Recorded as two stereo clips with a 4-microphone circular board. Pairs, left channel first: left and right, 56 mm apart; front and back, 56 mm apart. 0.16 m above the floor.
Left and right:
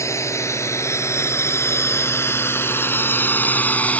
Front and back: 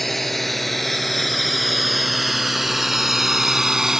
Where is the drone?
85° left; by 4.0 s 110° left.